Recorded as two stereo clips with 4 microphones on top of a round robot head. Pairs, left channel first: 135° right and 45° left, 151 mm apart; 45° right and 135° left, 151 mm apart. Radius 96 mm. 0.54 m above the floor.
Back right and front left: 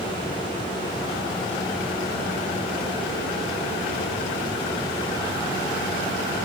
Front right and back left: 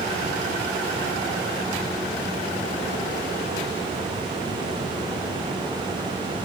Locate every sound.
Only background noise.